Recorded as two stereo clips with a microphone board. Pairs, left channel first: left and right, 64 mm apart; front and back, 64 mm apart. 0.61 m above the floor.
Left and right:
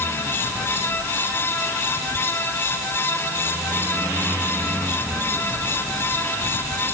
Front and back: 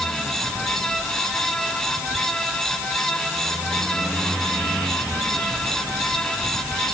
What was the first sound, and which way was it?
Only background noise.